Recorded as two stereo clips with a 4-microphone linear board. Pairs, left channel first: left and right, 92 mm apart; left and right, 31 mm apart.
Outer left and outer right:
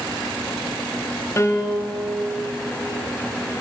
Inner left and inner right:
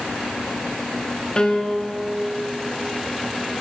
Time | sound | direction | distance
1.4 | a piano | 30° left (ahead or behind) | 1.0 m